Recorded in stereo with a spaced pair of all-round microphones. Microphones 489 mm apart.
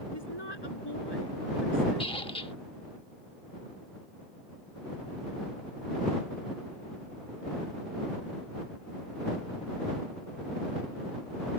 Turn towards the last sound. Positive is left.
turn(degrees=10)  # may be behind; listen again after turning